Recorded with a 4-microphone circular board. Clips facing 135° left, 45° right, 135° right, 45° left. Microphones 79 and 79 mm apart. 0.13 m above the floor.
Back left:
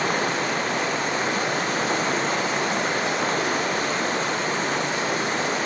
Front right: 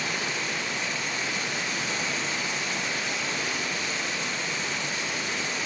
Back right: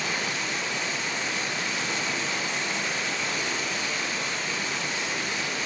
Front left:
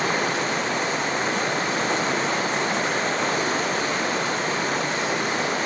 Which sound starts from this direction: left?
Running water, at 0.0 s.